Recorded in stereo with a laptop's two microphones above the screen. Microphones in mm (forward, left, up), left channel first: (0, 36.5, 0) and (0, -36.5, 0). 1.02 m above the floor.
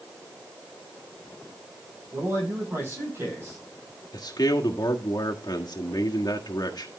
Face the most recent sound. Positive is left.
turn(degrees=60)  # may be behind; listen again after turning